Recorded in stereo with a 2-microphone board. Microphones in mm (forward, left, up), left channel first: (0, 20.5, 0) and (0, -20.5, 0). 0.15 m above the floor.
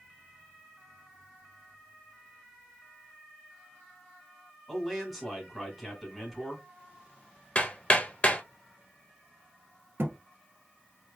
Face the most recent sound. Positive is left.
turn(degrees=-60)  # may be behind; listen again after turning